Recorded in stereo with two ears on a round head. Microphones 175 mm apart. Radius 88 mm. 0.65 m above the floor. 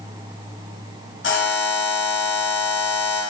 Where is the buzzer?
70° left (ahead or behind), 0.9 m.